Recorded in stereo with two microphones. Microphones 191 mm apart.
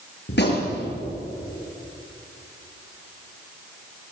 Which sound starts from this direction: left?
A gunshot, at 0.3 s.